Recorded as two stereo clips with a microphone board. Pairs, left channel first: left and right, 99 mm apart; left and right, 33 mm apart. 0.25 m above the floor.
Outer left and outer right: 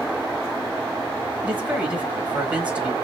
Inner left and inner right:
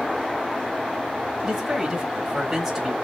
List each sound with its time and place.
1.4 s a man speaking: 15° right (ahead or behind), 1.2 m